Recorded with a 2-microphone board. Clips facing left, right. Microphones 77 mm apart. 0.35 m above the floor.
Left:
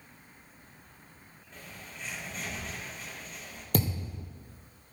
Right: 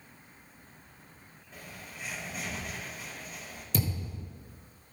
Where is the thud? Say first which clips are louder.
Left 3 dB; 65° left (ahead or behind), 3 m.